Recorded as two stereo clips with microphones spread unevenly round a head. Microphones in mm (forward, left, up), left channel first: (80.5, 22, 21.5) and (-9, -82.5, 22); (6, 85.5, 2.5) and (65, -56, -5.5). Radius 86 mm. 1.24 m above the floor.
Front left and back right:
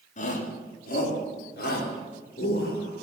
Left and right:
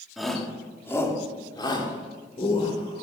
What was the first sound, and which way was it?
A shout, 20° left.